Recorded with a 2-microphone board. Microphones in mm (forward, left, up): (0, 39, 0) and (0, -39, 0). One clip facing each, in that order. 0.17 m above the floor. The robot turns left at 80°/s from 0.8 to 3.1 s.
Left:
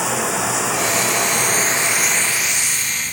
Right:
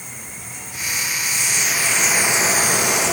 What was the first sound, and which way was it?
Running water, 100° left.